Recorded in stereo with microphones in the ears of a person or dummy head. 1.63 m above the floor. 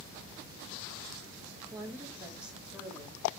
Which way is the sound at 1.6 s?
20° right (ahead or behind).